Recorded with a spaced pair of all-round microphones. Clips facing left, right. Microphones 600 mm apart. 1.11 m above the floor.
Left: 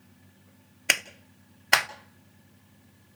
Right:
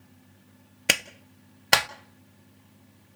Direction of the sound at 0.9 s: 60° right (ahead or behind).